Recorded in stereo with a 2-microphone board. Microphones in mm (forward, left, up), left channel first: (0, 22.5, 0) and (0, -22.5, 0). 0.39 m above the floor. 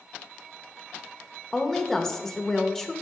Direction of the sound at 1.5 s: 10° left (ahead or behind).